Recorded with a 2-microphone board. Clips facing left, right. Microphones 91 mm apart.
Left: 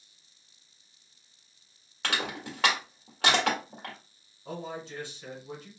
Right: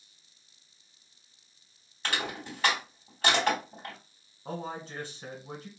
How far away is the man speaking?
About 1.0 m.